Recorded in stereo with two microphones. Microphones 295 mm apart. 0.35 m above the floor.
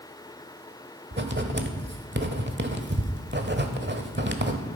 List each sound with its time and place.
1.1 s writing: 40° right (ahead or behind), 1.1 m